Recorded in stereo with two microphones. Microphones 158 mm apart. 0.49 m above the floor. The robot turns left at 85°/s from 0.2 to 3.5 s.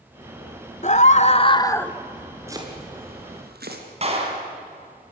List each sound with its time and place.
0.8 s a scream: 100° left, 1.0 m; by 1.9 s 10° left, 1.0 m
2.5 s chopping: 15° right (ahead or behind), 3.5 m; by 3.8 s 75° right (ahead or behind), 3.5 m
4.0 s a clap: 40° right (ahead or behind), 4 m